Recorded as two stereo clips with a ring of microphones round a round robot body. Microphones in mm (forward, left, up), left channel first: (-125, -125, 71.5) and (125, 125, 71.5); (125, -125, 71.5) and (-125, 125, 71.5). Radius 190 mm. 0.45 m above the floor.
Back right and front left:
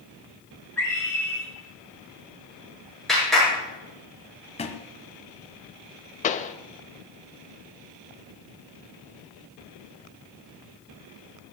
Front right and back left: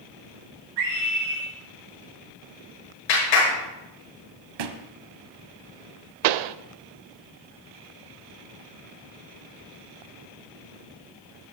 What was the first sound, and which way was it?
A scream, 135° left.